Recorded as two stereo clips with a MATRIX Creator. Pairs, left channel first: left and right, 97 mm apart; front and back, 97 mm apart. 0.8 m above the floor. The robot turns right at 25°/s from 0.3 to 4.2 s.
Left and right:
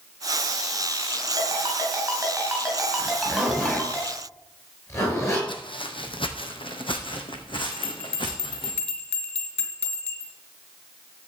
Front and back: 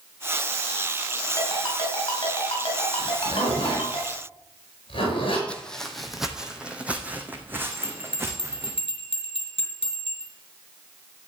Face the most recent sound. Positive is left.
turn(degrees=15)